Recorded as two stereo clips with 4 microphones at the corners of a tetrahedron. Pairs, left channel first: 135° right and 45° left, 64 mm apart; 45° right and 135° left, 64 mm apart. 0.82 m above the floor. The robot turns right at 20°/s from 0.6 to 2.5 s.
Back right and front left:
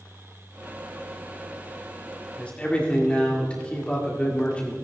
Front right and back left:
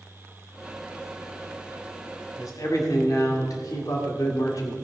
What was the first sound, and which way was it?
A man speaking, 65° right.